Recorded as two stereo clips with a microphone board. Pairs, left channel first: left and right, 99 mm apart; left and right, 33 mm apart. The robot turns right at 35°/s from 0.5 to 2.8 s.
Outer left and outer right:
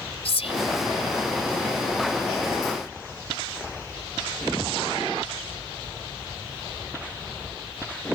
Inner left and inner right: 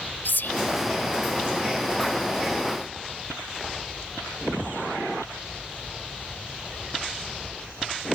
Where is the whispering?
80° left.